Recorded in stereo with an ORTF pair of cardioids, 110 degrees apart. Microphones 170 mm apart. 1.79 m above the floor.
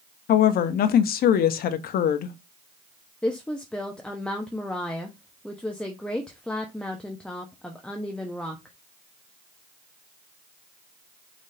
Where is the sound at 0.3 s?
60° left, 0.9 m.